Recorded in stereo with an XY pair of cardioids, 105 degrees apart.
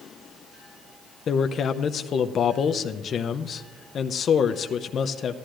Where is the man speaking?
55° left, 0.6 m.